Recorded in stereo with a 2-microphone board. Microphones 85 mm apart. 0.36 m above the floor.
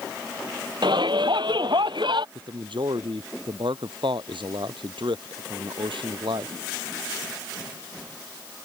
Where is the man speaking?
85° right.